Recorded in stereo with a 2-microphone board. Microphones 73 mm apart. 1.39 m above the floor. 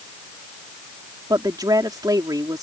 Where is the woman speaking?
65° right (ahead or behind).